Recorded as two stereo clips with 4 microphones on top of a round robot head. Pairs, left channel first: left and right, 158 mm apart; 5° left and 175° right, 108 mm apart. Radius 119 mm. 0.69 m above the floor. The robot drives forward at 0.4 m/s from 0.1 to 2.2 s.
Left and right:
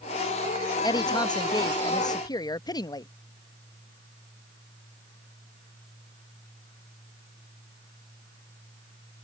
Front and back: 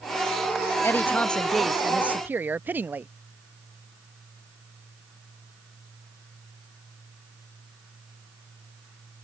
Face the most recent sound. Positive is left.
turn(degrees=125)